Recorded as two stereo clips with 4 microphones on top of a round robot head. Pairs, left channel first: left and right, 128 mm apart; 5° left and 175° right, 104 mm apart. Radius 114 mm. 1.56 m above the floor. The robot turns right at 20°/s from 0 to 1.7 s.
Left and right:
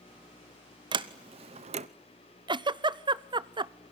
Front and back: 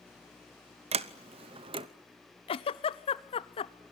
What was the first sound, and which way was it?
A sliding door, 150° right.